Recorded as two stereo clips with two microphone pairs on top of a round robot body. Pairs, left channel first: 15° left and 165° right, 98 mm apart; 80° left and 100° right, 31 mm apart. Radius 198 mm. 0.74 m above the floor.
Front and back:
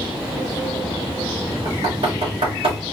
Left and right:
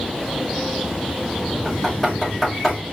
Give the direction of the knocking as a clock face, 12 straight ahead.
7 o'clock.